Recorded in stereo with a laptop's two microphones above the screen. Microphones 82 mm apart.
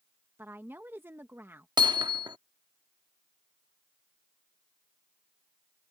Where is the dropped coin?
I don't hear a dropped coin.